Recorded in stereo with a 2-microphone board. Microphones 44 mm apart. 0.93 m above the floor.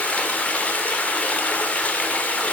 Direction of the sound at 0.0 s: 30° left (ahead or behind).